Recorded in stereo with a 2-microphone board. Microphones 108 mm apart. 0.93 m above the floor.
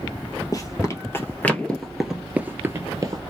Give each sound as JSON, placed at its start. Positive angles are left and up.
{"t": 0.5, "sound": "running footsteps", "side_deg": 35, "distance_m": 1.3}